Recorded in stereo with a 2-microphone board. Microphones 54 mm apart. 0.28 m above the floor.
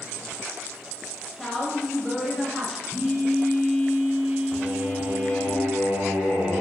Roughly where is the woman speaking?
Centre.